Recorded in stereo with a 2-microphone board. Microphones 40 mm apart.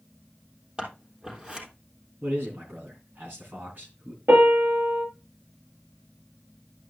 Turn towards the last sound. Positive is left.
turn(degrees=-75)  # may be behind; listen again after turning